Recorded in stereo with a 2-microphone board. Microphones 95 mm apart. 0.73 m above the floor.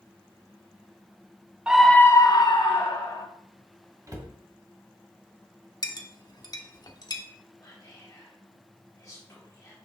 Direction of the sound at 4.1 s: 35° right (ahead or behind).